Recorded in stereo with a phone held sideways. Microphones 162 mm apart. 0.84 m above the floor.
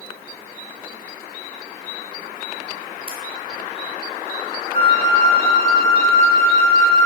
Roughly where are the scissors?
Left.